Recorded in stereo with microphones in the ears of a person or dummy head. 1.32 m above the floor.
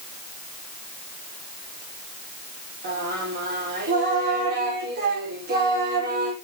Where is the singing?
50° right (ahead or behind), 5 m.